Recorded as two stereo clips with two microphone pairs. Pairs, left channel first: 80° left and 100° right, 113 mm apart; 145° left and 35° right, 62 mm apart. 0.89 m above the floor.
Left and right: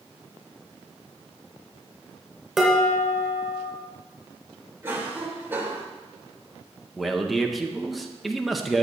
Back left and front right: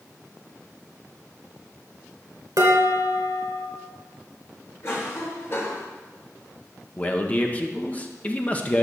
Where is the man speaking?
170° left, 0.9 m.